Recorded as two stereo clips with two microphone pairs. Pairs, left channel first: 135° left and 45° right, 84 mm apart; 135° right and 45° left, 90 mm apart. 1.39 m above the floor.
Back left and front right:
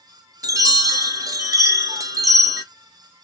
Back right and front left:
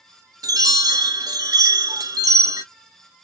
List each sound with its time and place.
0.4 s a chime: 5° left, 0.7 m